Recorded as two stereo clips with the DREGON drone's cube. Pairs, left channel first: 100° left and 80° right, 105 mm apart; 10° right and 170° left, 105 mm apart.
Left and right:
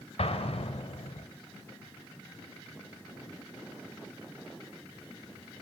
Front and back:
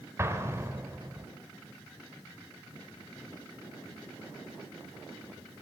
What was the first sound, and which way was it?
An explosion, 105° left.